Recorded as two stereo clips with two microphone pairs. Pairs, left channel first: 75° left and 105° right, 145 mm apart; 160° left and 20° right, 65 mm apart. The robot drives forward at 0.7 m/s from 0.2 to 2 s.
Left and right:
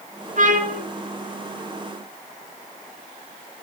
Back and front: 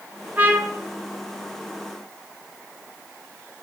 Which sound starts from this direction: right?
A trumpet, at 0.4 s.